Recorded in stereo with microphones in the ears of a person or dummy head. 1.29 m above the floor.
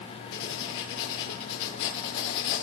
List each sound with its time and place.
0.3 s writing: 70° left (ahead or behind), 3.5 m